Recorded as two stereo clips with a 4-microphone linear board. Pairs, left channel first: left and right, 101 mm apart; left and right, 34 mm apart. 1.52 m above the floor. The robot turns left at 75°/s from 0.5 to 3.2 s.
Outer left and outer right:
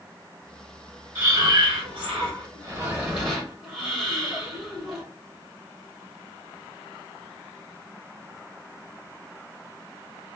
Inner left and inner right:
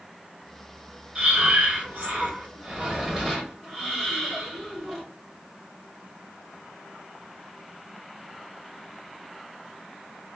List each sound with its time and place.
1.1 s breathing: 25° right, 2.5 m; by 5.0 s straight behind, 2.5 m